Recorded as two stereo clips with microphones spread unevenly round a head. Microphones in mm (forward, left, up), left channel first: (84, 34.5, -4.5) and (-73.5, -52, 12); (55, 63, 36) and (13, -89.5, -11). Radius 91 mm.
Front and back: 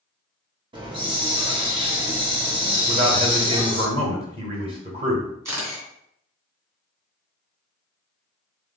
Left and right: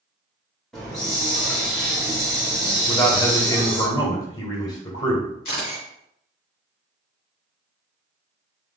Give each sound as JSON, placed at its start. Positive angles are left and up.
{"t": 0.7, "sound": "a hiss", "azimuth_deg": 150, "distance_m": 0.8}
{"t": 2.9, "sound": "a man speaking", "azimuth_deg": 150, "distance_m": 1.5}
{"t": 5.5, "sound": "a camera shutter", "azimuth_deg": 135, "distance_m": 2.5}